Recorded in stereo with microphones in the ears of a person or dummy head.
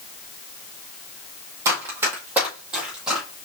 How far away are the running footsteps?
About 1.8 m.